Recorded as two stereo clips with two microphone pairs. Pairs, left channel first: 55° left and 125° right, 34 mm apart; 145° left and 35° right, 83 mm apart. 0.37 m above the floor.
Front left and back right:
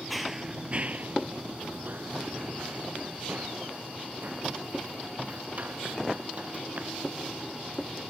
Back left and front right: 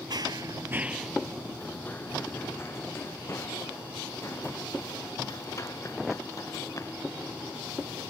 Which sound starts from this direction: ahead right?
Running footsteps, at 0.1 s.